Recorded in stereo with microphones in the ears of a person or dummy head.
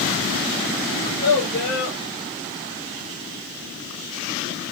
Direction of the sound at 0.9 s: 45° left (ahead or behind).